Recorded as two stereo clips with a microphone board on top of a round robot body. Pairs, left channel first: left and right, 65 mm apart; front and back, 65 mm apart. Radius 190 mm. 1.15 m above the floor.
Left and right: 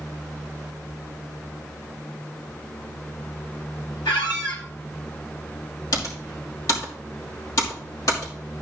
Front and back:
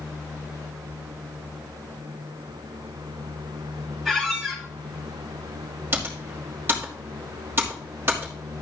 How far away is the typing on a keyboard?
About 2.5 m.